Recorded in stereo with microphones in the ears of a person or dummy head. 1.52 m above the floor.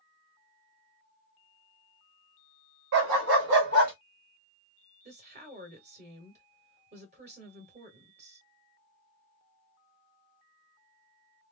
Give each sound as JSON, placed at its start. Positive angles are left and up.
{"t": 2.9, "sound": "a dog barking", "side_deg": -55, "distance_m": 1.5}
{"t": 5.0, "sound": "a woman speaking", "side_deg": -35, "distance_m": 1.1}